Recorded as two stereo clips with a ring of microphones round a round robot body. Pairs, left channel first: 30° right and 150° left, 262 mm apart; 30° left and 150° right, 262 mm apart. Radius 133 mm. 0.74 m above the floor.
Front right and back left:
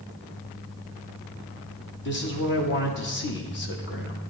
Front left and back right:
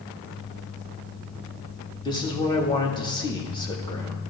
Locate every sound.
2.0 s a man speaking: 35° right, 1.3 m